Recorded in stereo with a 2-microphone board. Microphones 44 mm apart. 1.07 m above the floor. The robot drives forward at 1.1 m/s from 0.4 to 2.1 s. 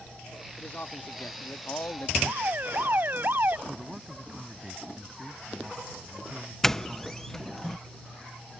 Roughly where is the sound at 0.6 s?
Left.